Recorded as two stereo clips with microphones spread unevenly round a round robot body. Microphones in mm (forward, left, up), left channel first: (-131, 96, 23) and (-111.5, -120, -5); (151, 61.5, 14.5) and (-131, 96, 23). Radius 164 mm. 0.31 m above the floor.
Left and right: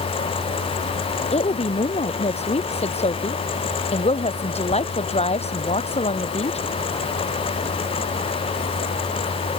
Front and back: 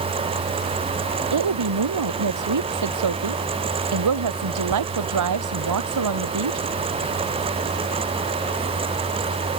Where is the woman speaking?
155° left.